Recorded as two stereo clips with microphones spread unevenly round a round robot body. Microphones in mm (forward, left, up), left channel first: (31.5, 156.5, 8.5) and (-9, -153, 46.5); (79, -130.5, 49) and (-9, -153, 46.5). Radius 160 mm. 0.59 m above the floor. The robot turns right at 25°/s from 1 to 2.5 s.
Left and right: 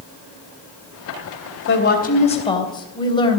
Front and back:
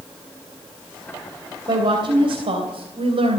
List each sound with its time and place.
1.7 s a woman speaking: 135° left, 3 m; by 3.4 s 155° left, 3 m